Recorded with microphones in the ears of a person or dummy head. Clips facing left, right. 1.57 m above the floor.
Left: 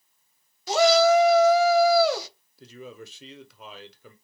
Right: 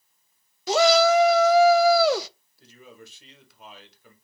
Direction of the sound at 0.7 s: 55° right (ahead or behind).